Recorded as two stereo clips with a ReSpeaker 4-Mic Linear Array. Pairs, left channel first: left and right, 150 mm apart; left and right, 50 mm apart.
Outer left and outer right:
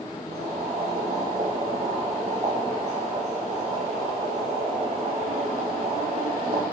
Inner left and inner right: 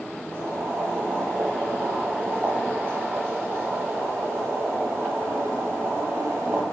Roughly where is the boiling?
Right.